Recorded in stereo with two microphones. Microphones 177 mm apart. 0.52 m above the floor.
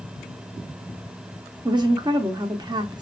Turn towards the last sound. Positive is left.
turn(degrees=-25)  # may be behind; listen again after turning